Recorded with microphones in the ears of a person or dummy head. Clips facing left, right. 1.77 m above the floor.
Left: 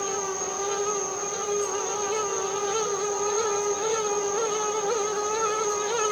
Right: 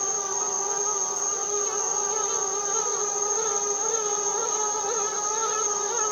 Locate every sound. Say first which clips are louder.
0.0 s an insect: left 4 dB; 55° right (ahead or behind), 1.7 m